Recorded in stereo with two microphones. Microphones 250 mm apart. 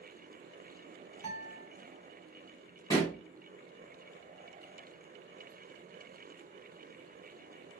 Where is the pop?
15° left (ahead or behind), 1.7 m.